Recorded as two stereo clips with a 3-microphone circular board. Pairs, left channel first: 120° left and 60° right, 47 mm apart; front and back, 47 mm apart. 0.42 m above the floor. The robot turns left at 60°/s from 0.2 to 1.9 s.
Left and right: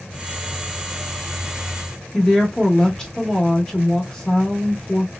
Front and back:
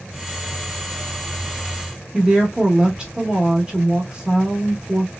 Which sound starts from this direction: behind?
A woman speaking, at 2.1 s.